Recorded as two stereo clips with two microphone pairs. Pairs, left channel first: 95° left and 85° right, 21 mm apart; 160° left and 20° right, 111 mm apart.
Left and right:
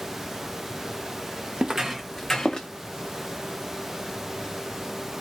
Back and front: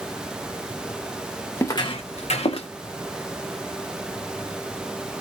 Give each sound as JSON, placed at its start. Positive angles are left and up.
{"t": 1.6, "sound": "footsteps", "azimuth_deg": -130, "distance_m": 0.8}